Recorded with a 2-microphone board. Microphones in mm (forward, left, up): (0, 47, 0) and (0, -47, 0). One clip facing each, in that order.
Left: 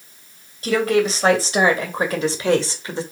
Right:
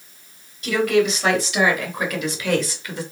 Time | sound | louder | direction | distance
0.6 | a woman speaking | even | 35° left (ahead or behind) | 3 m